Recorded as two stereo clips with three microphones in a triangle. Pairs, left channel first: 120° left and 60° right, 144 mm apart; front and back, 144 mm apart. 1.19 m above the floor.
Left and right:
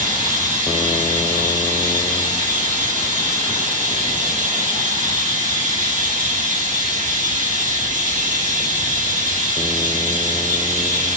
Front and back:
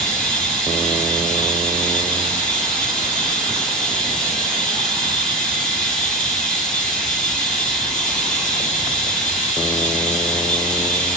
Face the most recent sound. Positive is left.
turn(degrees=-85)